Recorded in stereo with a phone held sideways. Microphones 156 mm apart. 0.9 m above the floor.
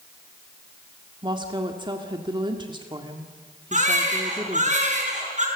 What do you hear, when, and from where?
1.2 s a woman speaking: 30° right (ahead or behind), 1.8 m
3.7 s a baby crying: 50° right (ahead or behind), 6 m